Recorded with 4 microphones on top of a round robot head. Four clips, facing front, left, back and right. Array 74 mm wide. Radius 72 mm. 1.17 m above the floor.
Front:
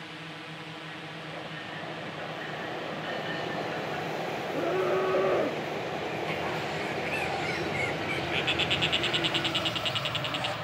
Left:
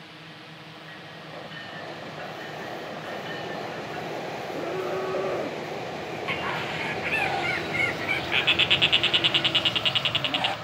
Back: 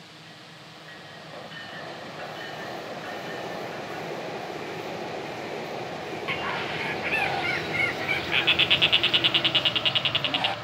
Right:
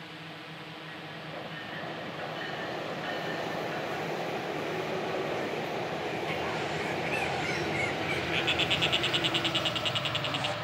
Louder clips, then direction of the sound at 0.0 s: Right 1 dB, front 5 dB; 15° right.